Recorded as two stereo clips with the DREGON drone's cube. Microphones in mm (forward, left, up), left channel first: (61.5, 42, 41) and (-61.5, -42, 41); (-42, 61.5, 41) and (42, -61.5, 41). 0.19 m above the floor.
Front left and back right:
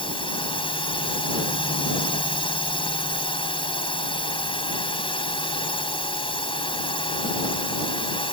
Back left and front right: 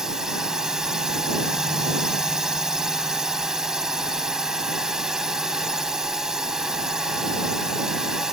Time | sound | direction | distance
0.0 | a drone | 30° left | ?